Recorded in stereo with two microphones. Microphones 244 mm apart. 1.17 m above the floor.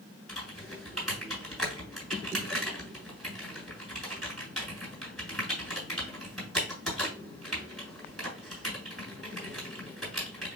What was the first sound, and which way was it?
Typing on a keyboard, centre (ahead or behind).